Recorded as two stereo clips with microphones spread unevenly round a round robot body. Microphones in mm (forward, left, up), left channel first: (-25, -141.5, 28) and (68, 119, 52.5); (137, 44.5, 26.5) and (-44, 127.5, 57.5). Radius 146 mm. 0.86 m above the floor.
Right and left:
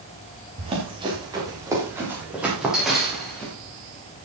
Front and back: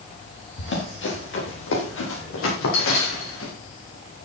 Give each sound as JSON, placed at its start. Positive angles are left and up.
{"t": 0.6, "sound": "running footsteps", "azimuth_deg": 0, "distance_m": 7.5}